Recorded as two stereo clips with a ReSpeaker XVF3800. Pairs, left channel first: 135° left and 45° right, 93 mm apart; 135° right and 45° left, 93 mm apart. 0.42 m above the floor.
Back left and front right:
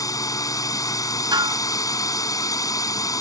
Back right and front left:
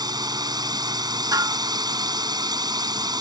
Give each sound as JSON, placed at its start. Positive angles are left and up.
{"t": 0.0, "sound": "a drone", "azimuth_deg": 85}
{"t": 1.3, "sound": "dishes clattering", "azimuth_deg": -5}